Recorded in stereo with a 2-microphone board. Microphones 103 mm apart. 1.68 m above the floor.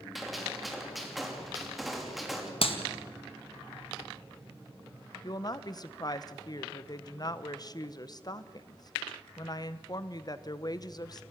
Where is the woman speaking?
40° left (ahead or behind), 0.9 m.